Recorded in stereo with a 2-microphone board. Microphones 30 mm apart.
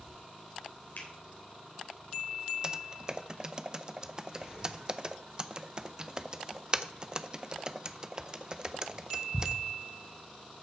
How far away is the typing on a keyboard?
About 0.5 m.